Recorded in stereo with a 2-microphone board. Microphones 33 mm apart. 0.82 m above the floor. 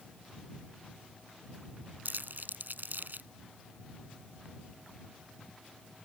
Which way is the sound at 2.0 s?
65° right (ahead or behind).